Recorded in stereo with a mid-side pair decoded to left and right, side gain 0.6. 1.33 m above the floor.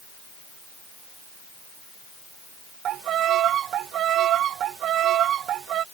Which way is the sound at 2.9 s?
55° right.